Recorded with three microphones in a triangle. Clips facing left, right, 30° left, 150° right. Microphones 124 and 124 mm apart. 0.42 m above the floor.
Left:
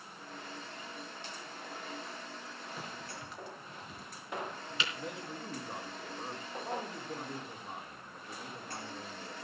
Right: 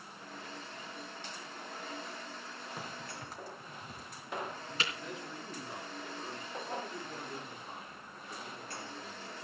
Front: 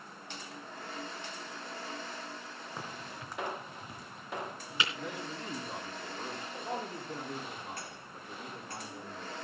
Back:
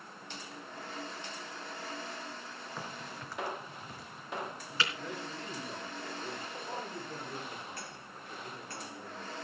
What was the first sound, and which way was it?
A crack, 40° right.